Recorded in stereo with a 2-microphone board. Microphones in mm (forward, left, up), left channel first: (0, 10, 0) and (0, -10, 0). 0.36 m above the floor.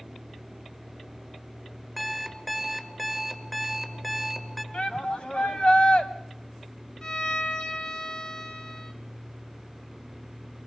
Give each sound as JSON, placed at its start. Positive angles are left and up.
{"t": 2.0, "sound": "an alarm clock", "side_deg": 5, "distance_m": 1.7}
{"t": 4.7, "sound": "a shout", "side_deg": 60, "distance_m": 1.9}
{"t": 7.0, "sound": "a violin", "side_deg": 35, "distance_m": 1.6}